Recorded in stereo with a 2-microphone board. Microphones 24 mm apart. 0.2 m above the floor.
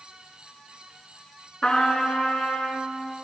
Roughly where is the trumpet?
Left.